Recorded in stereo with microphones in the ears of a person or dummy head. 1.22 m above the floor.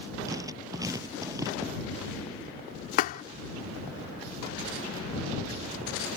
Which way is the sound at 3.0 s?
45° left (ahead or behind).